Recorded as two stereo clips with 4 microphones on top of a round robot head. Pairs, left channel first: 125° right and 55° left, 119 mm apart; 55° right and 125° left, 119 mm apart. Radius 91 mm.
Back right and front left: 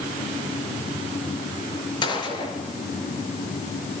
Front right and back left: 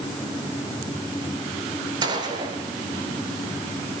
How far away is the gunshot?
About 5 m.